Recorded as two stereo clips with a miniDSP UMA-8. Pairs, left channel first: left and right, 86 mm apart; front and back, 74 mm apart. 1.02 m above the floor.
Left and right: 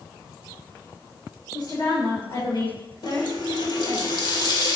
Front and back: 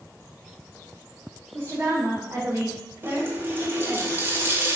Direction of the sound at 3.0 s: 120° left.